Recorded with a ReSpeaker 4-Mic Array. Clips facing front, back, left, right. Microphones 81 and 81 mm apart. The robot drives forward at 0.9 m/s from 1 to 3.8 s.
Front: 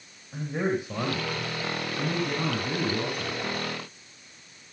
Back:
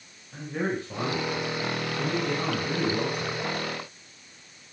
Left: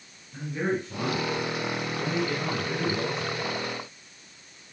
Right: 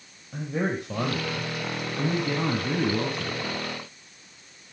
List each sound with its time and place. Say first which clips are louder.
0.3 s a man speaking: front 2 dB, right 1 dB; 75° right, 6 m; by 3.6 s 100° right, 6 m